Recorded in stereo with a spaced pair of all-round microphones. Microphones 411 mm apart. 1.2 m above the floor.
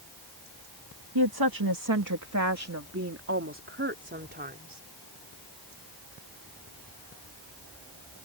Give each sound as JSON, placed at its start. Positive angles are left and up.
{"t": 1.1, "sound": "a woman speaking", "side_deg": -65}